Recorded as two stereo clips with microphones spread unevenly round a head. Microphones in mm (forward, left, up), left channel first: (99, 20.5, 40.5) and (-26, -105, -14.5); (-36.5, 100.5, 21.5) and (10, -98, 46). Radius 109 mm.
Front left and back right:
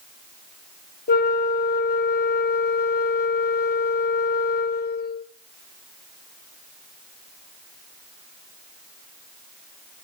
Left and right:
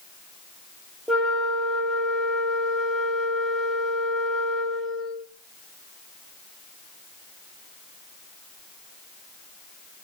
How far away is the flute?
About 1.6 m.